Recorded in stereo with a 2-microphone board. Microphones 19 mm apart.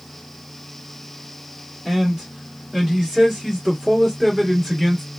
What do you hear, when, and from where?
1.9 s a man speaking: 20° right (ahead or behind), 1.9 m